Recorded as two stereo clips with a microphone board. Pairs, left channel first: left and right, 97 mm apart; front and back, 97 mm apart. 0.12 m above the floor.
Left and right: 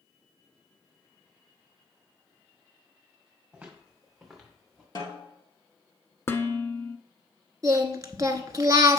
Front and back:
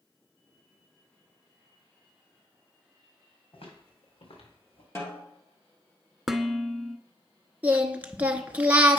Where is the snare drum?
55° left, 2.5 m.